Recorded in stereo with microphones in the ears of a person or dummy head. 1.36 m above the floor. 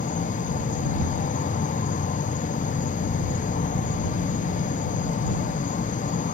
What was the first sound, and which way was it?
An insect, 35° left (ahead or behind).